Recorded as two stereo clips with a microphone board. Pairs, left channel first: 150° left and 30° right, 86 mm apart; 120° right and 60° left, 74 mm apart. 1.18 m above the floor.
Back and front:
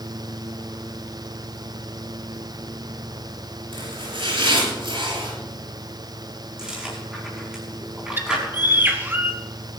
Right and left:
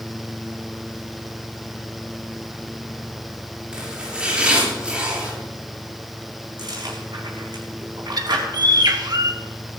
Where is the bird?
35° left, 1.6 m.